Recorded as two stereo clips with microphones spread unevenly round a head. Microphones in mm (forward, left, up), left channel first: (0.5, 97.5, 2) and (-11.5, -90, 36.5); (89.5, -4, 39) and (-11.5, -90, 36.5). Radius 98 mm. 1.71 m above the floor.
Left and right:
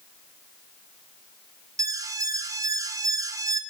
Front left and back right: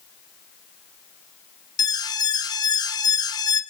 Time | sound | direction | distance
1.8 | an alarm | 20° right | 1.6 m